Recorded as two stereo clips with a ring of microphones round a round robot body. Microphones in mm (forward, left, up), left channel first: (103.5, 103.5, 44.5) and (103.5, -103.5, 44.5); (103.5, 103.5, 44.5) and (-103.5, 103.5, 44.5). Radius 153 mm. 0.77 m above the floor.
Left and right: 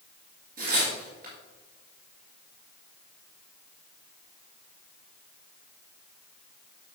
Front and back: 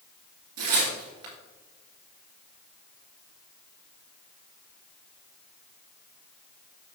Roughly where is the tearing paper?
Behind right.